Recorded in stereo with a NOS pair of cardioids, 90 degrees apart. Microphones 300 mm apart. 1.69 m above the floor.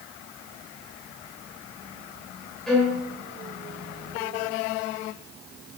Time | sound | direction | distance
2.7 | a violin | straight ahead | 3.5 m